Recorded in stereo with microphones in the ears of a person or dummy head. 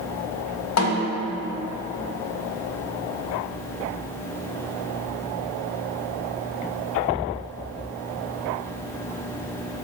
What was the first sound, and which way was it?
A snare drum, 75° left (ahead or behind).